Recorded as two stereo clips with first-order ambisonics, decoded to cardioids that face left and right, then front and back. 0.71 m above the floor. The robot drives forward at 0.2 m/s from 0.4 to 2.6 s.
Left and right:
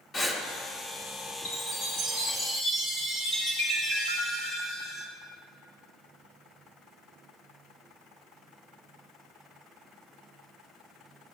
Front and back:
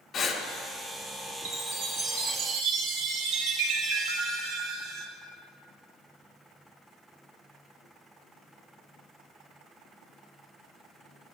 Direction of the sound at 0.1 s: 40° left.